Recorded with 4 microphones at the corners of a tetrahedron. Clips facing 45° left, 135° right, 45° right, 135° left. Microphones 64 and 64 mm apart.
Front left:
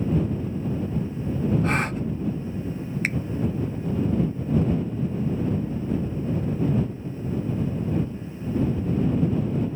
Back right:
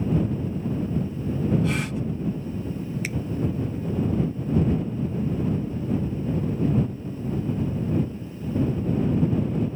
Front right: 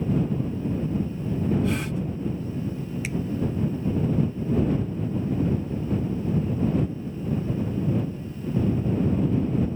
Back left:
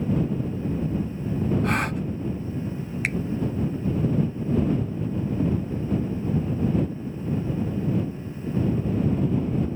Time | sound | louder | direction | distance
1.6 | a gasp | front left 2 dB, back left 2 dB | 95° left | ?
3.0 | a finger snap | front left 4 dB, back left 5 dB | 90° left | ?